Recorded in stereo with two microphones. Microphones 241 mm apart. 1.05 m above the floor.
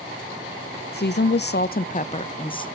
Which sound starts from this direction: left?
A woman speaking, at 0.9 s.